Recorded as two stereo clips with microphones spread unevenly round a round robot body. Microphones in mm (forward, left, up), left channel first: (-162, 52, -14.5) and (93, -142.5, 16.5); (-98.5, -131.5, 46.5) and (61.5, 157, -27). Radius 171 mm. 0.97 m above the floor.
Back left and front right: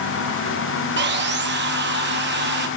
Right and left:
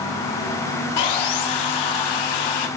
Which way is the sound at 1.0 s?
95° right.